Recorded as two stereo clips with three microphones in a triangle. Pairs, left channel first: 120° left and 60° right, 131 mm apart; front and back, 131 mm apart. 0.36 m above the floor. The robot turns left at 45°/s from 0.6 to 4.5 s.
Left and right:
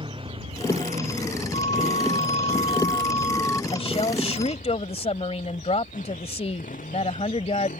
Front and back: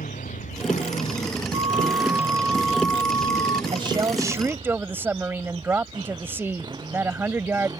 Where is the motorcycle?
10° right; by 7.8 s 120° left.